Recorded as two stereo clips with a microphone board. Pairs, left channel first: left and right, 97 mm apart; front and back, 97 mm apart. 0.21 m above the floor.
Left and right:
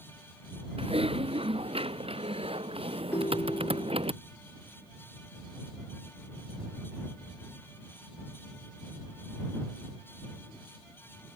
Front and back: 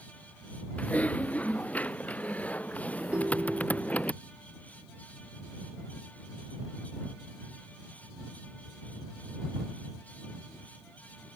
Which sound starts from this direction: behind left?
A ringtone, at 3.1 s.